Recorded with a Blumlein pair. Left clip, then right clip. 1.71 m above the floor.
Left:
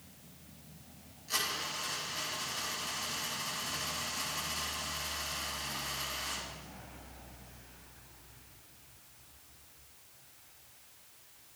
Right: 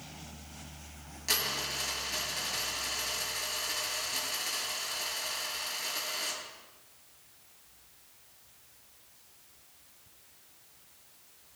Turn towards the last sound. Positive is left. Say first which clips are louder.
# right 3 dB
turn(degrees=-40)